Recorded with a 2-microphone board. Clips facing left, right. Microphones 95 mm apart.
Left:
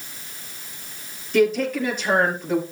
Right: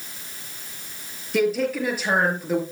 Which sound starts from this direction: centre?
A woman speaking, at 1.3 s.